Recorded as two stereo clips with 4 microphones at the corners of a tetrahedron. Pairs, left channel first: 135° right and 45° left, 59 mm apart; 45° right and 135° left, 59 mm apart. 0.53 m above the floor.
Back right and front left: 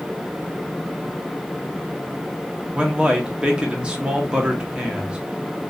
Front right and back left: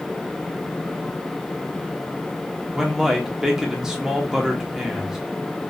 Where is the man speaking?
70° left, 0.8 m.